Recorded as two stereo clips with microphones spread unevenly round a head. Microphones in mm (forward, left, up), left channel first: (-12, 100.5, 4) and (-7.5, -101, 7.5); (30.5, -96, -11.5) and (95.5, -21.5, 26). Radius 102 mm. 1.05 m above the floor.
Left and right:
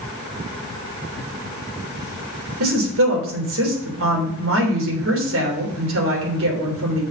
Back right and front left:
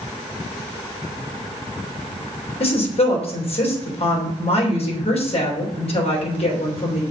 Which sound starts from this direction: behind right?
A woman speaking, at 2.6 s.